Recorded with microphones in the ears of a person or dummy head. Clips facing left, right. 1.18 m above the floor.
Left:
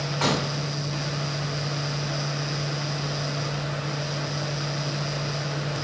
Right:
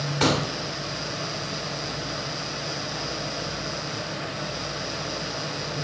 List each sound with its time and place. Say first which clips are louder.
0.2 s a pop: right 3 dB; 35° right (ahead or behind), 0.8 m